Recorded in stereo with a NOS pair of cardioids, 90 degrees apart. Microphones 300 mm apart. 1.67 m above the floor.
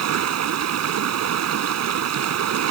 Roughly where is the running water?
Ahead right.